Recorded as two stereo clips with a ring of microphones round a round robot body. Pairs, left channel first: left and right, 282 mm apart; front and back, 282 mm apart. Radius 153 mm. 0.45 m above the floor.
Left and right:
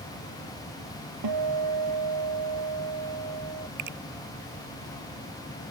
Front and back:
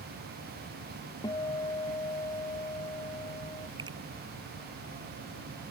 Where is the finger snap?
105° right.